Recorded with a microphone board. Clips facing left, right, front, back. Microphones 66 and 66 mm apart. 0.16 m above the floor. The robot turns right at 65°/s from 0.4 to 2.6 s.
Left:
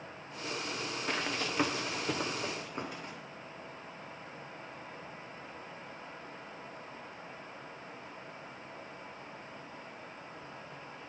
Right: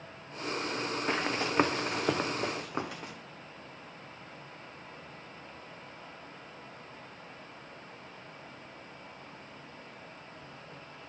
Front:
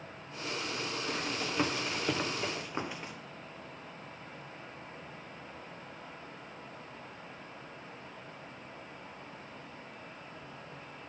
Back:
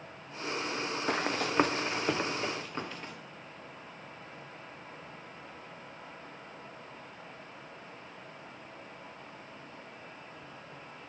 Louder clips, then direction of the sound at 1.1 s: Right 3 dB, back 7 dB; 160° right.